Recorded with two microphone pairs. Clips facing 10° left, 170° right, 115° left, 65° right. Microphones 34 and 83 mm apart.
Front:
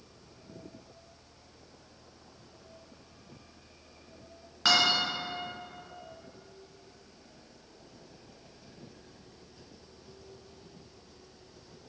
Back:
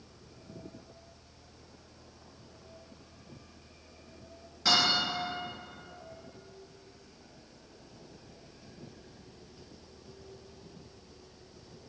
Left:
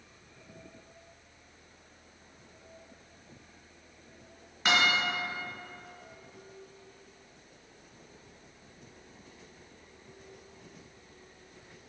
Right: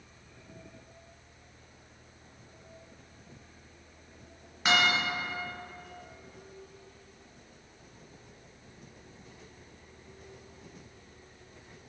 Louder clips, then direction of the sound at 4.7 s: Front 2 dB, right 1 dB; 20° left.